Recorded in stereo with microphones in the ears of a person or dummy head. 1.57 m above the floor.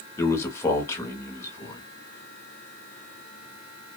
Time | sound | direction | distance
0.2 | a man speaking | 15° left (ahead or behind) | 0.9 m